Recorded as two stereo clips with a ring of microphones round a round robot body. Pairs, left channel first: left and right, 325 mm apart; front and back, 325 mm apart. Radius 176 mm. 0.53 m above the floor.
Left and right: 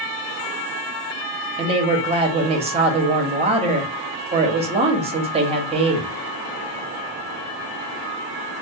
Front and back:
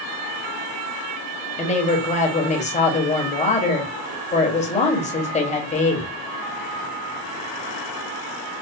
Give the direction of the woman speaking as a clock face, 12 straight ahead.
1 o'clock.